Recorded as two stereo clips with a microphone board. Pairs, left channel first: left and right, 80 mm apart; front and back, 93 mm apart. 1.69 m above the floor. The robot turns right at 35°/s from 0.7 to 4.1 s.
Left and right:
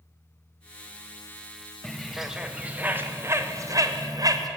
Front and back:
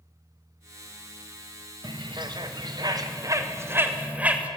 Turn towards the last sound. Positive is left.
turn(degrees=-110)